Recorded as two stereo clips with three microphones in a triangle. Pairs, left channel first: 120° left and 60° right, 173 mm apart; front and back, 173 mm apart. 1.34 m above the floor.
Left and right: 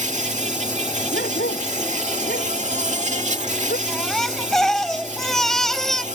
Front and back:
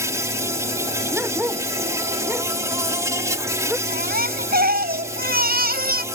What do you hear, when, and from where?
0.0 s an insect: 105° right
1.1 s a dog barking: 100° left
3.9 s a baby crying: 155° right